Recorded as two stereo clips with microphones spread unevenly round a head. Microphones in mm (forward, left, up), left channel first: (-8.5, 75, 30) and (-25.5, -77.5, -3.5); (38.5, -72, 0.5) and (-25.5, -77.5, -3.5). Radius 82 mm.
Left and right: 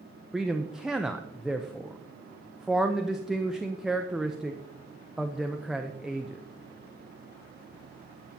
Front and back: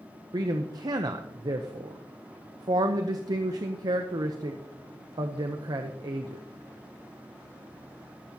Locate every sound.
0.3 s a man speaking: 175° right, 0.7 m